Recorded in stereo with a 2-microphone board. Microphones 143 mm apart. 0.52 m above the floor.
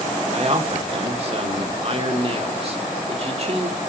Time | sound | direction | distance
0.3 | a man speaking | 45° right (ahead or behind) | 1.2 m